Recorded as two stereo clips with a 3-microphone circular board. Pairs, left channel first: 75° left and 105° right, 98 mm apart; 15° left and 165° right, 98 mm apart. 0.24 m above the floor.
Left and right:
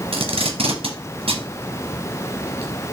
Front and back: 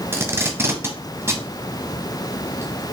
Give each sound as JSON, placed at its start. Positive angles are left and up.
{"t": 0.1, "sound": "tape being pulled", "azimuth_deg": -100, "distance_m": 1.4}